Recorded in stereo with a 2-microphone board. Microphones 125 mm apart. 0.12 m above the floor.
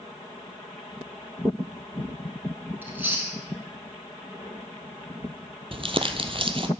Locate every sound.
2.8 s chewing: 15° right (ahead or behind), 2 m
5.7 s crumpling: 45° right (ahead or behind), 0.8 m